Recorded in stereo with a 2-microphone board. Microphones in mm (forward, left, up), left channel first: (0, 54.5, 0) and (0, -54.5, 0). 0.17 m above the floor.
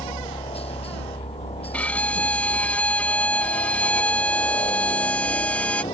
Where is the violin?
15° left (ahead or behind).